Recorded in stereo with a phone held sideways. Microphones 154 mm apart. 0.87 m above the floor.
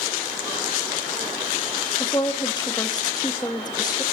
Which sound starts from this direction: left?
A woman speaking, at 2.0 s.